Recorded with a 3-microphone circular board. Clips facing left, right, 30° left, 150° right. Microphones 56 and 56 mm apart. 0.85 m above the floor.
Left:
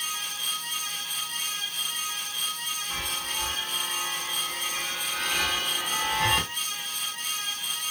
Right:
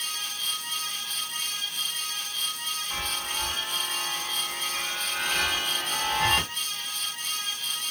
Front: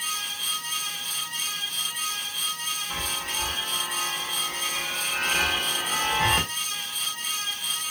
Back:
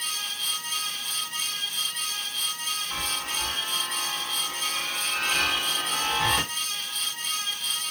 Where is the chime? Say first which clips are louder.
Right 1 dB, even; 5° right, 1.1 m.